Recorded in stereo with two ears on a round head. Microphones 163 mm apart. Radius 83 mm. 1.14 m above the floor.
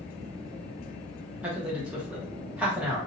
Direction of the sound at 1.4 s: 5° right (ahead or behind).